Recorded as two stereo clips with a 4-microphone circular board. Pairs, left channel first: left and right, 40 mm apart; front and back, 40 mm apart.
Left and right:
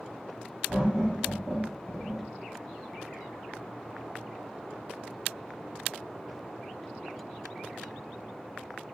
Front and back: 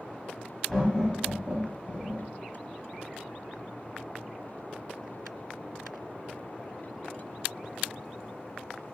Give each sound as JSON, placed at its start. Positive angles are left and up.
{"t": 0.7, "sound": "laughter", "azimuth_deg": -60, "distance_m": 1.5}